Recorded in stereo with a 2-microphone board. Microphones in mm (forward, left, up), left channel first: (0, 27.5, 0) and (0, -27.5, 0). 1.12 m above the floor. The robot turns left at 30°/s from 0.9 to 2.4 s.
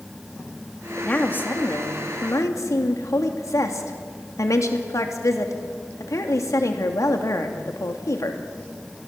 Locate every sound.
1.0 s a woman speaking: 155° left, 2.5 m; by 8.4 s 115° left, 2.5 m